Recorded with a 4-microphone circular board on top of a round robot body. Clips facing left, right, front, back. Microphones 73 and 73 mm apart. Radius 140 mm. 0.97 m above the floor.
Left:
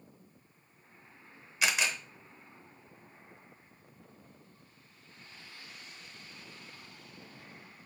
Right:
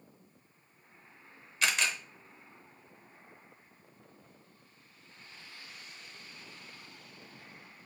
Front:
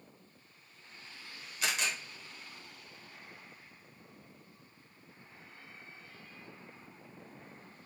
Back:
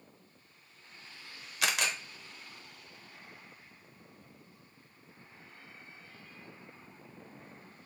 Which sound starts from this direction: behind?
A camera shutter, at 1.6 s.